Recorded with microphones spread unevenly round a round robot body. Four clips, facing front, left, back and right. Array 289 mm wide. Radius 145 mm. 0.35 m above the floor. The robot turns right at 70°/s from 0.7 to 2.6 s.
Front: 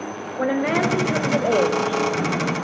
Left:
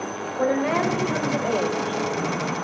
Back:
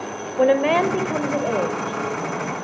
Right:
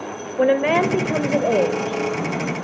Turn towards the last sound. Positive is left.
turn(degrees=10)